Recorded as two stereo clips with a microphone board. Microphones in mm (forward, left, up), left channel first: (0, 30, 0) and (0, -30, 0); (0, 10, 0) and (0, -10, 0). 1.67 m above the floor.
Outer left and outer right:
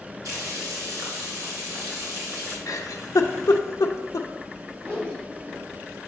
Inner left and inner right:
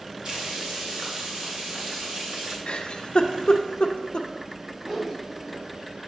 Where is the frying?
70° right (ahead or behind), 2.5 m.